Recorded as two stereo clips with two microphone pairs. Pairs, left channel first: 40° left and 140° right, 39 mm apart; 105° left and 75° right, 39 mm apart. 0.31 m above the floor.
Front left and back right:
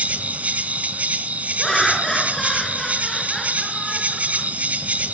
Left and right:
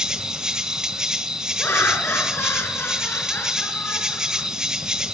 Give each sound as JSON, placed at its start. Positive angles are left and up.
{"t": 0.0, "sound": "an insect", "azimuth_deg": -140, "distance_m": 1.4}
{"t": 1.6, "sound": "laughter", "azimuth_deg": 120, "distance_m": 4.0}